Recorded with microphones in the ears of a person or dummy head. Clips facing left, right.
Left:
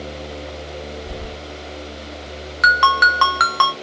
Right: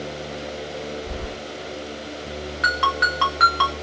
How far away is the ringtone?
About 0.5 m.